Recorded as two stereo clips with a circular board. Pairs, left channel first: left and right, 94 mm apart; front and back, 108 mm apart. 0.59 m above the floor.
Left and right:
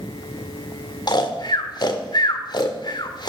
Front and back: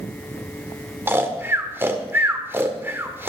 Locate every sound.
1.1 s snoring: 115° left, 1.4 m